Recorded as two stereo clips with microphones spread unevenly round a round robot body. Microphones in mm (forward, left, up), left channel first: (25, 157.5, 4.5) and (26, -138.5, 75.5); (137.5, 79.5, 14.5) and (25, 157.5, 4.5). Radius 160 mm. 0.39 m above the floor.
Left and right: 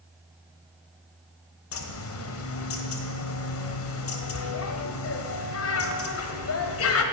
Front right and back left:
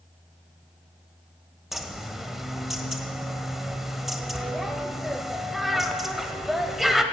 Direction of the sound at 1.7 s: 60° left.